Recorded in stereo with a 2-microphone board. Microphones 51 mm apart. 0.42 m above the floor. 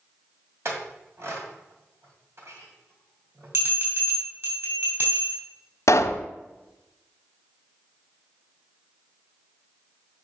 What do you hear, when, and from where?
0.7 s a clink: 60° right (ahead or behind), 2.0 m
3.5 s a bell: 60° right (ahead or behind), 4 m
5.9 s a pop: 75° left (ahead or behind), 0.8 m